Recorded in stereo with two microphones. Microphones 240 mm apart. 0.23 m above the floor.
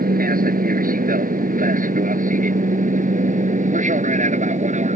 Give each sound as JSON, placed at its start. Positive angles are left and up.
{"t": 0.0, "sound": "an aircraft", "side_deg": -35}